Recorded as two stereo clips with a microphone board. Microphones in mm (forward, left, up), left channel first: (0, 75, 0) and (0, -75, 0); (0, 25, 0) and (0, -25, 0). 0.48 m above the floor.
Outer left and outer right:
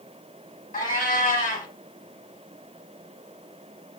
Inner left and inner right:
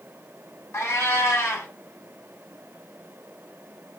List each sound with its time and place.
0.7 s a cat meowing: 65° left (ahead or behind), 1.0 m